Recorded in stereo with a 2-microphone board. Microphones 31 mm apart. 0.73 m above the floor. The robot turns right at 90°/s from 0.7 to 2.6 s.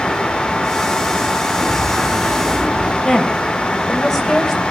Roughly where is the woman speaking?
Centre.